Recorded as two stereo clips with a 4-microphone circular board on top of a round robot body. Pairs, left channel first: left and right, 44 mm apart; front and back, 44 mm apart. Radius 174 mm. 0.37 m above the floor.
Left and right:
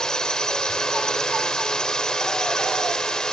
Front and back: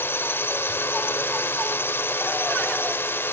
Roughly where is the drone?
Ahead.